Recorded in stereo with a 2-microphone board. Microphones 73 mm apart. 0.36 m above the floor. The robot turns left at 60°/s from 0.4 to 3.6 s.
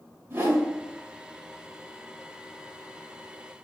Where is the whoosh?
30° right (ahead or behind), 1.6 m; by 0.6 s 35° right (ahead or behind), 1.6 m.